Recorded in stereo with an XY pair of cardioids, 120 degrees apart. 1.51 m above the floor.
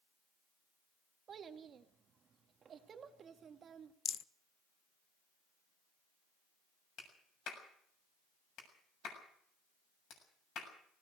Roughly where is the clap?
Ahead left.